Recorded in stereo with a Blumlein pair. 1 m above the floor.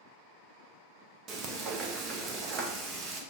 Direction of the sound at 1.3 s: 30° right.